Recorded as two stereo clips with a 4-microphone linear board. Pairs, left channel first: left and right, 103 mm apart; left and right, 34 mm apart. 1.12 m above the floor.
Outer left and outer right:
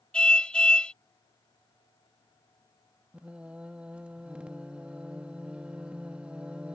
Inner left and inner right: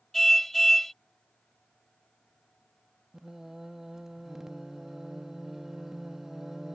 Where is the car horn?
10° left (ahead or behind).